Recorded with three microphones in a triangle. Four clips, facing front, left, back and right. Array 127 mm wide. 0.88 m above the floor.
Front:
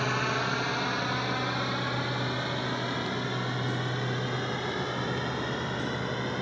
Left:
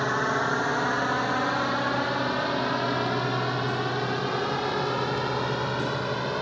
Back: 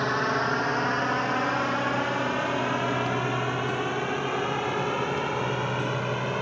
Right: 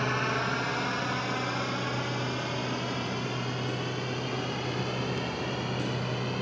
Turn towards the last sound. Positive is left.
turn(degrees=135)